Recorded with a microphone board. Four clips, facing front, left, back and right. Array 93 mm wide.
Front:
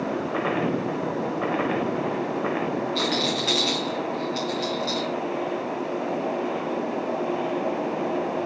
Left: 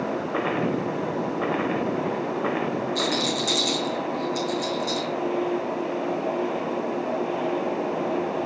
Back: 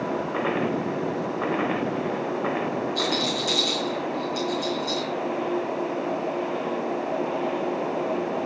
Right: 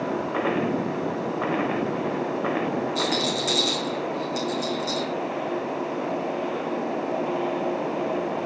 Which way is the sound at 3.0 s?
20° right.